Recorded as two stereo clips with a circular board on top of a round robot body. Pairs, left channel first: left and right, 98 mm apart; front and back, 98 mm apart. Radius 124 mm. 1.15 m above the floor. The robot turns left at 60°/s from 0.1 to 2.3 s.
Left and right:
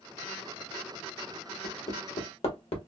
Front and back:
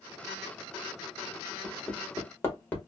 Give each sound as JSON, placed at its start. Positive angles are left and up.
{"t": 1.6, "sound": "hammering", "azimuth_deg": 110, "distance_m": 1.2}